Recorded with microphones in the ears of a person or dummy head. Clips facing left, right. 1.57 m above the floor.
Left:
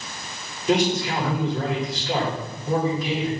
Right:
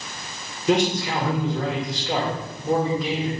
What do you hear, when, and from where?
0.7 s a man speaking: 60° right (ahead or behind), 2 m